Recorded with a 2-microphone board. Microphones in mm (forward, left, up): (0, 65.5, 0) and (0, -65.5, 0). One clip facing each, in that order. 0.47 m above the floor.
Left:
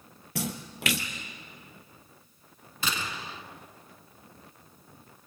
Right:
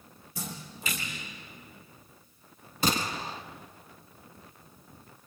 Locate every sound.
0.3 s a splash: 75° left (ahead or behind), 1.9 m
2.8 s a gunshot: 40° right (ahead or behind), 1.4 m